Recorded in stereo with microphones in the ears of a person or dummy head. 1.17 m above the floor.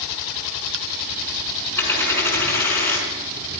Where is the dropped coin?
15° left (ahead or behind), 6 m.